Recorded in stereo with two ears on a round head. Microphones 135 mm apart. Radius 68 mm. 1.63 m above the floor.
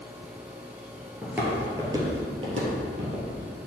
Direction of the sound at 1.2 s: 10° right (ahead or behind).